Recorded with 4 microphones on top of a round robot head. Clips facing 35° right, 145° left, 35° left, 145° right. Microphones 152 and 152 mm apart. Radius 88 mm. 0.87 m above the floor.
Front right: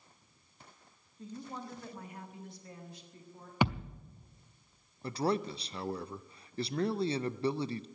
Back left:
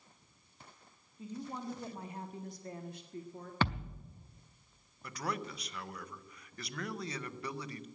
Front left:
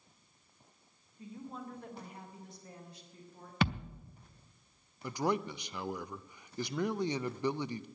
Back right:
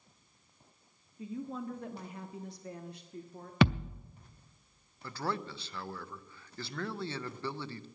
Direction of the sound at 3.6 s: 115° right.